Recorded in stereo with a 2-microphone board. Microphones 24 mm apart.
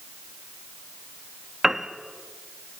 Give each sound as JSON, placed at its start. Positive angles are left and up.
{"t": 1.6, "sound": "a piano", "side_deg": -15, "distance_m": 1.1}